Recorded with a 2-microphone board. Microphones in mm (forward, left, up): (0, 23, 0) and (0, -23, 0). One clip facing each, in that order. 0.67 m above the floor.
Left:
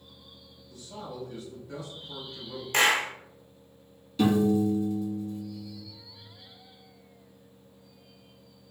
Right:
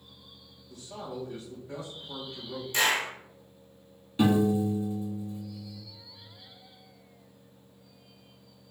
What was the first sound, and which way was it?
A man speaking, 55° right (ahead or behind).